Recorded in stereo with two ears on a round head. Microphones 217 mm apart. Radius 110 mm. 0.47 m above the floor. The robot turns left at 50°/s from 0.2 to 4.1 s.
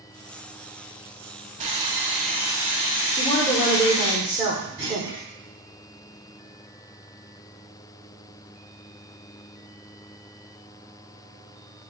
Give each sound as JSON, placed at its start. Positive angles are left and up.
{"t": 1.6, "sound": "sawing", "azimuth_deg": -150, "distance_m": 1.0}
{"t": 3.2, "sound": "a woman speaking", "azimuth_deg": 30, "distance_m": 1.1}
{"t": 4.8, "sound": "a clunk", "side_deg": -25, "distance_m": 1.7}